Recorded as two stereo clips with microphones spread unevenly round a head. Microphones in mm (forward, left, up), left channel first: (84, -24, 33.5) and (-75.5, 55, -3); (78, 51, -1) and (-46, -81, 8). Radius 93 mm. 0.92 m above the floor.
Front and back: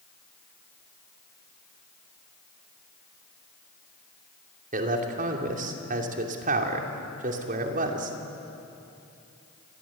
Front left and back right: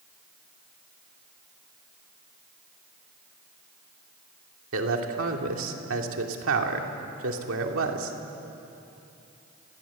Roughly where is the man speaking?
Behind.